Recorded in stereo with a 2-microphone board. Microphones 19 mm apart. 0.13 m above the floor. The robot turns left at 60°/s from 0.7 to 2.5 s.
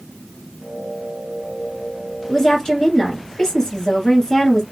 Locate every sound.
2.3 s a woman speaking: 25° left (ahead or behind), 1.5 m; by 4.6 s 30° left (ahead or behind), 1.5 m